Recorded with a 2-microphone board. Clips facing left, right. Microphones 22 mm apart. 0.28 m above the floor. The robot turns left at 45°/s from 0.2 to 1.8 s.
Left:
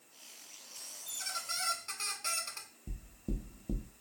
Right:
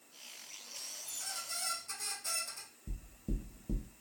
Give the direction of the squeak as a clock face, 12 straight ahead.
8 o'clock.